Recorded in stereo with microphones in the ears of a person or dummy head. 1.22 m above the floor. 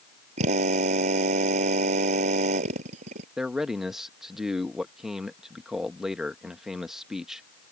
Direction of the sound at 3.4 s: 5° right (ahead or behind).